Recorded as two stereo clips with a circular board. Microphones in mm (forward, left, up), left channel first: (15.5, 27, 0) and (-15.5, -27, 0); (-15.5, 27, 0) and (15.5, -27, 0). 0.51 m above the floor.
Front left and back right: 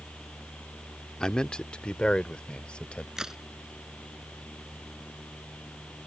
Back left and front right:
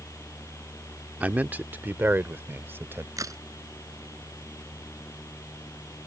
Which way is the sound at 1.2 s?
10° right.